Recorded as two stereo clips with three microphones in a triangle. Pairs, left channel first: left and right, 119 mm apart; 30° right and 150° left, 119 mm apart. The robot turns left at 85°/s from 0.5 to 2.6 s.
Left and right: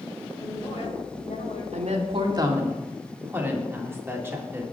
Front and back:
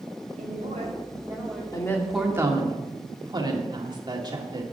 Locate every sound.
0.4 s a woman speaking: 150° left, 4 m; by 1.6 s 55° left, 4 m
1.7 s a woman speaking: 85° right, 2 m; by 4.6 s 160° right, 2 m